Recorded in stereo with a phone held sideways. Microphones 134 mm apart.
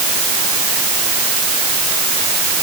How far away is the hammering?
I don't hear hammering.